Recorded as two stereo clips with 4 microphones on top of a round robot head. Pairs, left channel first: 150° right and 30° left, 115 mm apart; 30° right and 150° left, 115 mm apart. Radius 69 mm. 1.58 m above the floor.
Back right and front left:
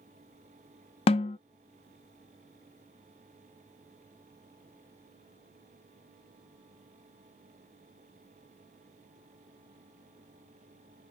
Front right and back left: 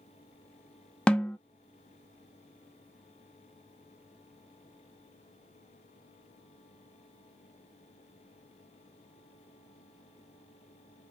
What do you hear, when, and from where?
1.1 s a snare drum: 115° right, 0.6 m